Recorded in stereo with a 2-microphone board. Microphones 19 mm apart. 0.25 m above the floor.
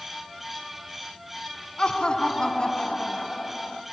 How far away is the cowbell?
No cowbell in this recording.